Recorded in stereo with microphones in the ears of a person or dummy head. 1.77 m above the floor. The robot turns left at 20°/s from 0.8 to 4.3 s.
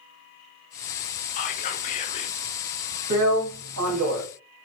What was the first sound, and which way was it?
Whispering, 40° left (ahead or behind).